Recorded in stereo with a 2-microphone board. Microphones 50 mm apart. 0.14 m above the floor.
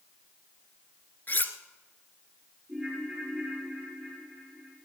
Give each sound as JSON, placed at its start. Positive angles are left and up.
{"t": 1.3, "sound": "cutlery clinking", "side_deg": 40, "distance_m": 1.1}
{"t": 2.7, "sound": "a ringtone", "side_deg": -25, "distance_m": 6.5}